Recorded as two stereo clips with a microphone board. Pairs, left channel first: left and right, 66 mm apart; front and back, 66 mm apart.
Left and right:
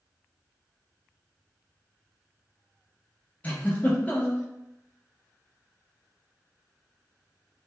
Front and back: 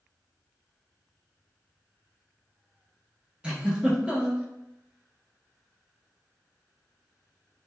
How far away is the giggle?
About 0.6 m.